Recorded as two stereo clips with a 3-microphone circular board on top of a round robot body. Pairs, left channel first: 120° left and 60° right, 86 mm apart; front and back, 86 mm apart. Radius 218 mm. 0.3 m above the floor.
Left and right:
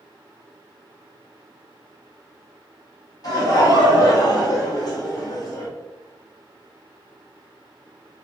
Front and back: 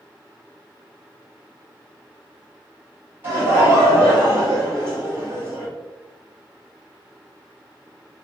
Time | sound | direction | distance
3.2 | laughter | 125° left | 1.8 m